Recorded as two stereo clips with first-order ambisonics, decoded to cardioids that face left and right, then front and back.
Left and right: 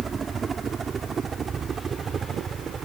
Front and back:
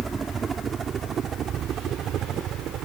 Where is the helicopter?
125° right; by 2.9 s 150° right.